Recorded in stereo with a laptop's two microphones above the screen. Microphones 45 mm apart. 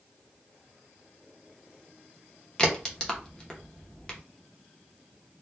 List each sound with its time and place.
2.6 s a crack: 15° left (ahead or behind), 0.8 m